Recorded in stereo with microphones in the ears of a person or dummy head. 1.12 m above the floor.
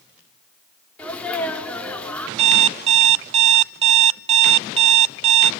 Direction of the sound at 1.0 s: 5° left (ahead or behind).